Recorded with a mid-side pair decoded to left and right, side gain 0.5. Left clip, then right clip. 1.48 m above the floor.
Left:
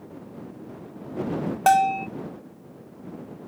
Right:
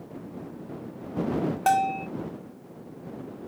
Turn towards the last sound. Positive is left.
turn(degrees=35)